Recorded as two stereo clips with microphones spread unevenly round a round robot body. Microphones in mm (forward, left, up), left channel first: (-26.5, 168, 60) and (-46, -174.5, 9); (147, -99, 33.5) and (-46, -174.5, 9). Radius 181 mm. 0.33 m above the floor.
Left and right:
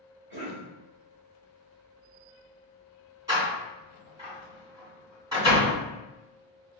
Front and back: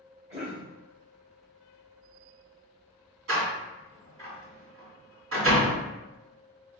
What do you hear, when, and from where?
0.3 s a cough: 120° right, 1.8 m
3.3 s a door slam: 170° right, 1.9 m